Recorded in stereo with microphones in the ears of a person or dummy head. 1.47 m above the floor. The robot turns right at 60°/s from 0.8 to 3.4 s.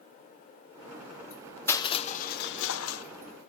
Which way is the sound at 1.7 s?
15° left.